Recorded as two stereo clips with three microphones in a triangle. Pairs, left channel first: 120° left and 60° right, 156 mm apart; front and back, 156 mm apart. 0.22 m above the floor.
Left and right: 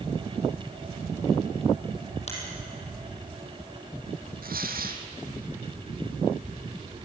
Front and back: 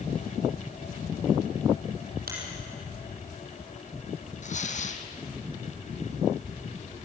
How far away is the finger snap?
About 5 m.